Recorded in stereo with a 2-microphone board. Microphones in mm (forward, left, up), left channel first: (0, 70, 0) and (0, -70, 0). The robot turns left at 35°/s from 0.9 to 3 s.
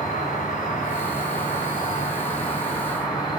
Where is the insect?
105° left, 2.5 m; by 3.4 s 30° left, 2.5 m.